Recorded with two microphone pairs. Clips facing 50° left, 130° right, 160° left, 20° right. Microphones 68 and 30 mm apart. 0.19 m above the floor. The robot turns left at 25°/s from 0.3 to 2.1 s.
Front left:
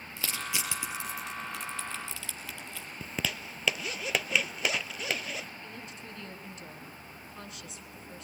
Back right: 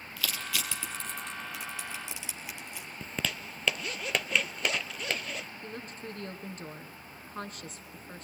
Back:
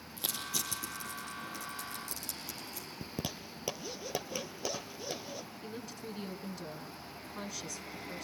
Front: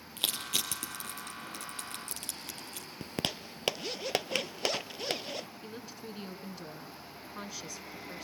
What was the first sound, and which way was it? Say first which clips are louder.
Crushing: even, front 5 dB; 10° right.